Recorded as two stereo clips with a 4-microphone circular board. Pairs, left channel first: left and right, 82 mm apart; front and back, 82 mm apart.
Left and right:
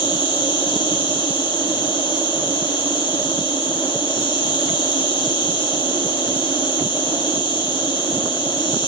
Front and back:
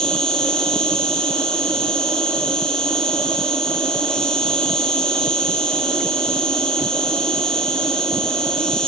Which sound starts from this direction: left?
An insect, at 0.0 s.